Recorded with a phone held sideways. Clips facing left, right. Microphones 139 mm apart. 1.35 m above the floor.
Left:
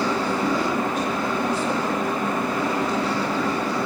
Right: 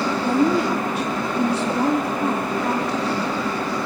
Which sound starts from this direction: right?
A woman speaking, at 0.2 s.